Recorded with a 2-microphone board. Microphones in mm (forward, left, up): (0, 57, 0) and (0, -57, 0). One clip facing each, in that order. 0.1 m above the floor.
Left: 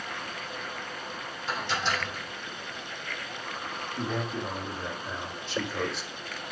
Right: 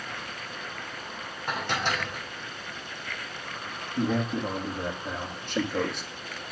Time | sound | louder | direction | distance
1.5 | dishes clattering | right 1 dB | 55° right (ahead or behind) | 3 m
4.0 | a man speaking | right 6 dB | 50° right (ahead or behind) | 4 m